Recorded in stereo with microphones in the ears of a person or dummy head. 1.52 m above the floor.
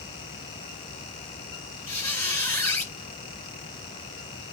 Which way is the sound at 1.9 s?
15° left (ahead or behind).